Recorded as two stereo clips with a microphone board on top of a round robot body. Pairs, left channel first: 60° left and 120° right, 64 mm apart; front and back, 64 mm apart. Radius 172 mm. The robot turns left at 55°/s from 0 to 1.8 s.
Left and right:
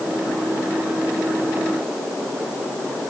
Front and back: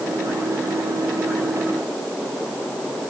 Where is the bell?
I don't hear a bell.